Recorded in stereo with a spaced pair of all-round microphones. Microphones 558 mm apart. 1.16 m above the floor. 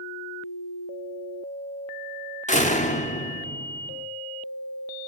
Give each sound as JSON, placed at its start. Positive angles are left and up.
{"t": 2.5, "sound": "a door slam", "side_deg": 10, "distance_m": 1.4}